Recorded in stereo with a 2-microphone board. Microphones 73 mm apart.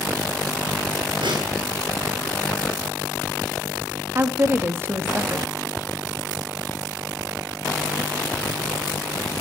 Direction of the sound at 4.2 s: 30° right (ahead or behind).